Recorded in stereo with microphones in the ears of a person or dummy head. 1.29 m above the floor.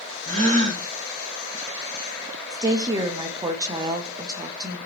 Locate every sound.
0.2 s a gasp: 40° right (ahead or behind), 1.5 m
2.5 s a woman speaking: 20° right (ahead or behind), 0.5 m